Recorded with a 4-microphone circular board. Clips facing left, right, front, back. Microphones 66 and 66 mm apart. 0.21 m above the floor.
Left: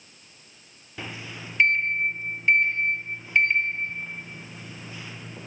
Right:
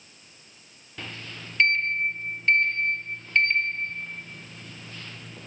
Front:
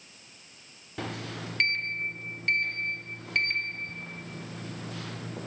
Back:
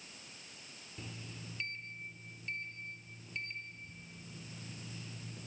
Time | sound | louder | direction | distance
1.0 | a sliding door | left 2 dB, front 14 dB | 10° left | ?